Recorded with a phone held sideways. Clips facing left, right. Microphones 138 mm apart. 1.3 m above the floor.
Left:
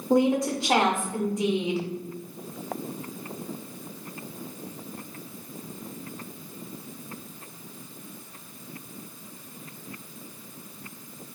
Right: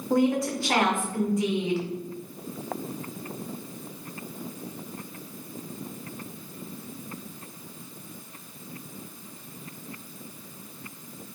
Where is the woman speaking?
20° left (ahead or behind), 0.7 m.